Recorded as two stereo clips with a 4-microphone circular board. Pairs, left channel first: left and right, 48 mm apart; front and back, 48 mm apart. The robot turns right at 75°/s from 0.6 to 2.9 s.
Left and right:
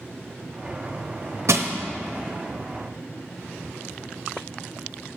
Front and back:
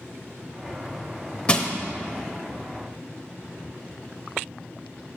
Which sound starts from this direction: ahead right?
Crushing, at 1.5 s.